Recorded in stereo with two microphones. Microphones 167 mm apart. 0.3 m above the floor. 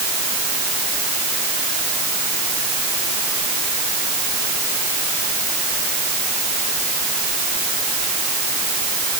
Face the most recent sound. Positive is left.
No sound to turn to.